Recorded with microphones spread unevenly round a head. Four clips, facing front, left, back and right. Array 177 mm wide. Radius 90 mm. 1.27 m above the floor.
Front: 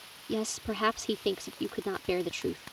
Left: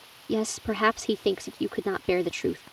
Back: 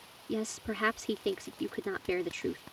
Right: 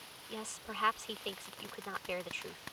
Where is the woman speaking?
80° left.